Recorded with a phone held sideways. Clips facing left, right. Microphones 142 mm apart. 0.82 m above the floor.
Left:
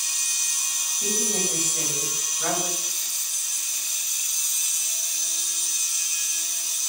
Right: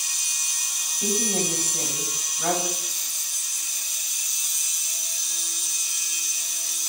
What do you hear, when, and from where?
1.0 s a woman speaking: 10° right (ahead or behind), 5.5 m